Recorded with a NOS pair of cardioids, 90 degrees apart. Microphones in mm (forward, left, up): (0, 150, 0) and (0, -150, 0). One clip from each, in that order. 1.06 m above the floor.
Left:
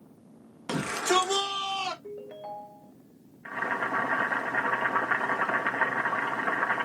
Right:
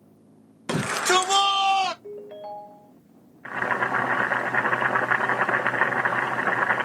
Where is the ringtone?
10° right, 0.6 m.